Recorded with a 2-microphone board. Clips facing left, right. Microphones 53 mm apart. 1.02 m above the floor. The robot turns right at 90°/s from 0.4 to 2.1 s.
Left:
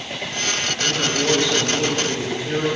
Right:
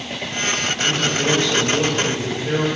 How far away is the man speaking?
About 3 m.